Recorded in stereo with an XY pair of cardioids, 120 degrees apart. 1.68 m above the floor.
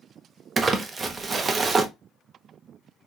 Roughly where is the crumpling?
Ahead right.